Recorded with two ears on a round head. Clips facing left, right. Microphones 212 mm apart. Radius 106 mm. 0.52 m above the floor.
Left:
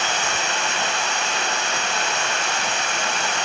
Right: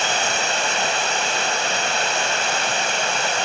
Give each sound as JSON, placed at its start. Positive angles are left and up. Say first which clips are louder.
{"t": 0.0, "sound": "running water", "louder": "right 3 dB", "side_deg": -30, "distance_m": 2.5}